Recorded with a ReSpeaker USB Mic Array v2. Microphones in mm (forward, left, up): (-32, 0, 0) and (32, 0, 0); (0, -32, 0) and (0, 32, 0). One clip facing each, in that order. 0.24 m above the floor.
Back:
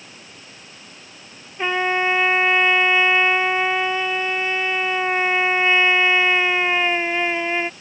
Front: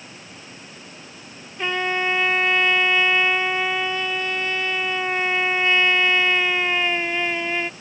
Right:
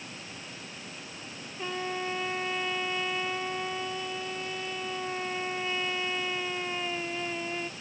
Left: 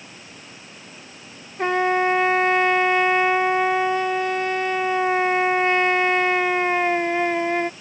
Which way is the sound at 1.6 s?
105° left.